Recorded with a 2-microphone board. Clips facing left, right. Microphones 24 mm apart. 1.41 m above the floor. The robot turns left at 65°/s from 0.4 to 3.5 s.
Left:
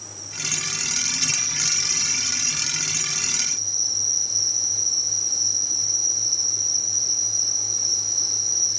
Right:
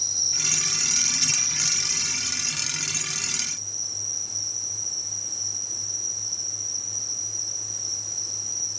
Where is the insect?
110° right; by 8.8 s 50° left.